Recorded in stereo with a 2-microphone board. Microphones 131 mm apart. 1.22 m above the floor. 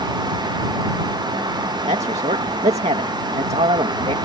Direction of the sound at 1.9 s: 55° right (ahead or behind).